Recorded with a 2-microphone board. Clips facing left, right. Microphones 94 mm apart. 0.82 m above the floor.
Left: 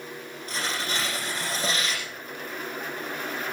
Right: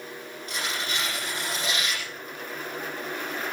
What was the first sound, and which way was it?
Tearing paper, 35° left (ahead or behind).